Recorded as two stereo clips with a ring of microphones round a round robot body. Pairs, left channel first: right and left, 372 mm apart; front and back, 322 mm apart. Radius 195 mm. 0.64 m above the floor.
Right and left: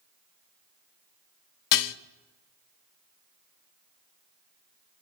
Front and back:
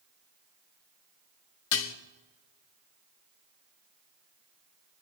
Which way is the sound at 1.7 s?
50° right.